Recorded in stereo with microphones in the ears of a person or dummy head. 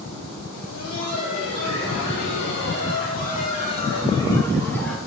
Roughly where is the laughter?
Left.